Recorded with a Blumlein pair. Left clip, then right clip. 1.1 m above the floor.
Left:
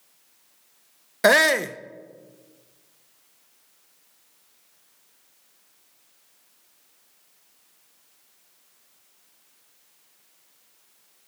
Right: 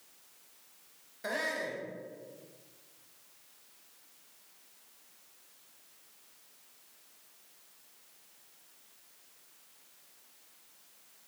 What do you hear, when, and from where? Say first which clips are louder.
1.2 s a shout: left 17 dB; 40° left, 0.7 m